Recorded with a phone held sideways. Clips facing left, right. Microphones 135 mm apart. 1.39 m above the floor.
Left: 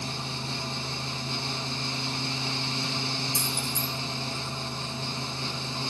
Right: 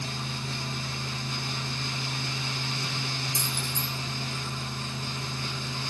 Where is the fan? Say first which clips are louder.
Left 1 dB; 30° left (ahead or behind), 0.8 m.